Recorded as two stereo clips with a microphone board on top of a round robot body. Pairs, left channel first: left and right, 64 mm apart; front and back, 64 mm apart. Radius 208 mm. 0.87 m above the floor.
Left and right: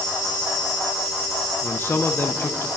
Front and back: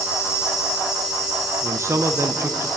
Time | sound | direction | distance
0.0 | an insect | 145° right | 3.5 m
1.6 | a man speaking | 140° left | 1.2 m